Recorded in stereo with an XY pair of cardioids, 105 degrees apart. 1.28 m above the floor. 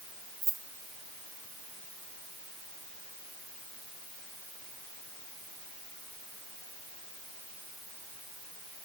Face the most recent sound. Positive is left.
turn(degrees=-40)